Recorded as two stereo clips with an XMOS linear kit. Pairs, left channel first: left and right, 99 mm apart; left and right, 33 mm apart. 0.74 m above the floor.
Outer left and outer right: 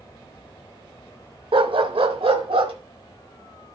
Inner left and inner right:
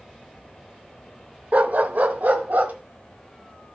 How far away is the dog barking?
About 0.6 m.